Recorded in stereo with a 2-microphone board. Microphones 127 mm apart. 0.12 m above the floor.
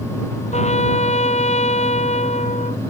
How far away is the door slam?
I don't hear a door slam.